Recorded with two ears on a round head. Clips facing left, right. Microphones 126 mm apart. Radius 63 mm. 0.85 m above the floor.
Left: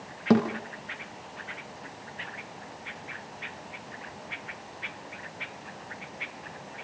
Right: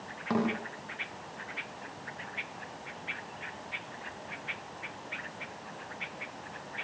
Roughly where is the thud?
Left.